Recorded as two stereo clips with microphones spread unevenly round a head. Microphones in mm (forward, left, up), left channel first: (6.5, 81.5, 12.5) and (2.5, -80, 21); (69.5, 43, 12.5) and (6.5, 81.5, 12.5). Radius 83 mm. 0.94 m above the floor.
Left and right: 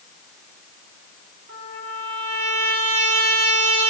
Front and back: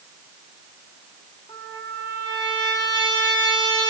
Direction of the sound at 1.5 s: 85° right.